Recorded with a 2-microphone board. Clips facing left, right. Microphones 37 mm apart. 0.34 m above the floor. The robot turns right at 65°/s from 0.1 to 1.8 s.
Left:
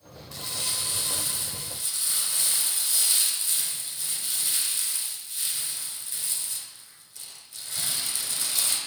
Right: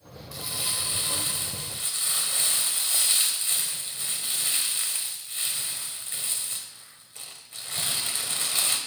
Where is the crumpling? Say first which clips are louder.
Right 1 dB; 175° right, 1.6 m; by 8.8 s 75° right, 1.6 m.